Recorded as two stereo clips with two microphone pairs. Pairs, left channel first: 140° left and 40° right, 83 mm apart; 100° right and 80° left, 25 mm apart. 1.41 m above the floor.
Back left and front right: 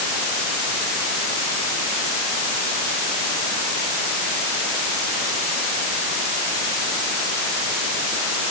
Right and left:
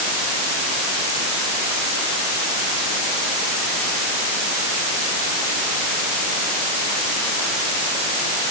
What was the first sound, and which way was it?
Only background noise.